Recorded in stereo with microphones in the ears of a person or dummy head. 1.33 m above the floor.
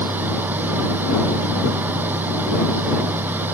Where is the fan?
15° right (ahead or behind).